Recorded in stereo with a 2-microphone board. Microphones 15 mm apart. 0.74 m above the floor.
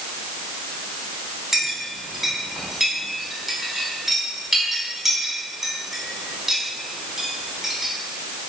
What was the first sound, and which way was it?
A clink, 25° right (ahead or behind).